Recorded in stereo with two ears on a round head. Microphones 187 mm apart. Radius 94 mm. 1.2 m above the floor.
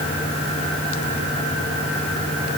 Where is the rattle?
No rattle in this recording.